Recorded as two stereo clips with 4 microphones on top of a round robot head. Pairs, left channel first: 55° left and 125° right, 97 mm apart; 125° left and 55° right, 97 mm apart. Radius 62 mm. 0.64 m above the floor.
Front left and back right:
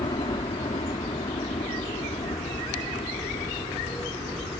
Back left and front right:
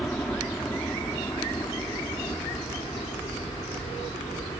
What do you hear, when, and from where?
0.0 s a helicopter: 50° left; by 4.6 s 70° left